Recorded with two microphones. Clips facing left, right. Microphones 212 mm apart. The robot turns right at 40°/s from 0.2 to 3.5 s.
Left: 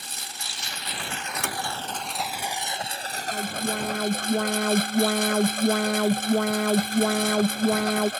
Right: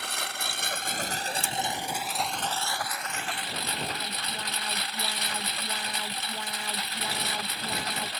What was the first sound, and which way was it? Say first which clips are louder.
A lawn mower: right 6 dB; 80° right.